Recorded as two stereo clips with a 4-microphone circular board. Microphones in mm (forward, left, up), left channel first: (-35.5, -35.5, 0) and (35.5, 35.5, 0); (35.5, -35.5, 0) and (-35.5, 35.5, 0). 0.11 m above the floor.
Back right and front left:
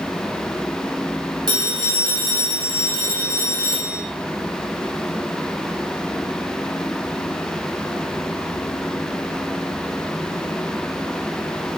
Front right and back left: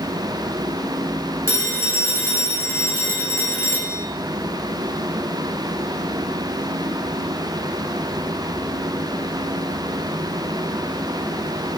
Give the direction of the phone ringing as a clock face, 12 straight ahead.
12 o'clock.